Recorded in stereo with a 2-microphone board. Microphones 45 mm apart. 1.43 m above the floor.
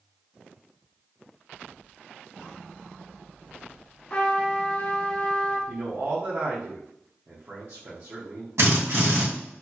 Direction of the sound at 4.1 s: 30° left (ahead or behind).